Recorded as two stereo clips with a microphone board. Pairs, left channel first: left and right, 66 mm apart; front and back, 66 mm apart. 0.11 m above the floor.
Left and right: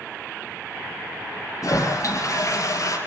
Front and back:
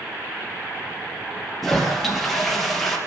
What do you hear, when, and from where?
1.6 s a toilet flushing: 90° left, 2.5 m